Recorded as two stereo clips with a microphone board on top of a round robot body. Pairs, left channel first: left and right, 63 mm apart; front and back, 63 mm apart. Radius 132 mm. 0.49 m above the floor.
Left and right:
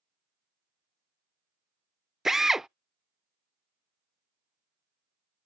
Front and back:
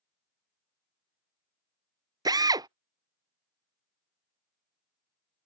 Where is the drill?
175° right.